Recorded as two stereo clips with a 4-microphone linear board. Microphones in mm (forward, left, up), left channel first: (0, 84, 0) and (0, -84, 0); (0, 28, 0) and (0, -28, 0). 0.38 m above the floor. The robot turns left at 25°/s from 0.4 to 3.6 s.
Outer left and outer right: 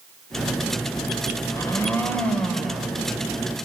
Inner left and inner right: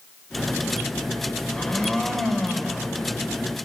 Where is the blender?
30° left, 1.8 m; by 2.9 s 5° right, 1.8 m.